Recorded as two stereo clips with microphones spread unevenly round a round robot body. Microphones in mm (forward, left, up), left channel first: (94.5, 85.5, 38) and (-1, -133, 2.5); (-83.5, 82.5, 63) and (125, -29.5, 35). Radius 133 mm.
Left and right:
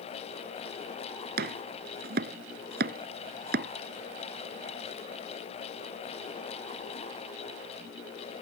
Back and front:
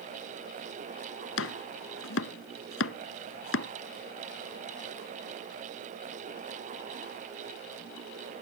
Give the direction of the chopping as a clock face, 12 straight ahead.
6 o'clock.